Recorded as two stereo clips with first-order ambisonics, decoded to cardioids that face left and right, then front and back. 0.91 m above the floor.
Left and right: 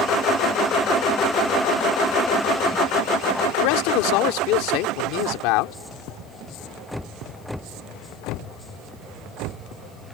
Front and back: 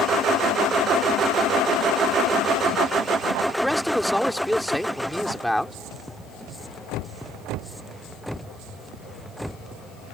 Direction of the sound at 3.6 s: 90° left.